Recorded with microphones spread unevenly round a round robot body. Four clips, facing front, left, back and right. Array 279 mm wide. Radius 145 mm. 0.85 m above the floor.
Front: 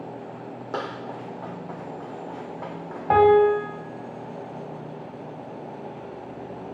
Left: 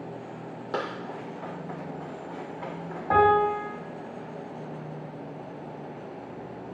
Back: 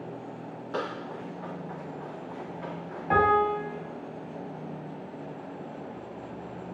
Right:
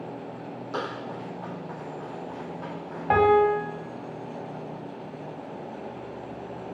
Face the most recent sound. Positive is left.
turn(degrees=-15)